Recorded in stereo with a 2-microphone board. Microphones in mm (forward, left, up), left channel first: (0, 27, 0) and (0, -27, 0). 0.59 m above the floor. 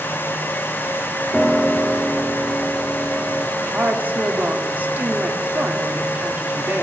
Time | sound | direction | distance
1.3 | a piano | 5° left (ahead or behind) | 1.6 m
3.6 | a woman speaking | 35° right (ahead or behind) | 1.6 m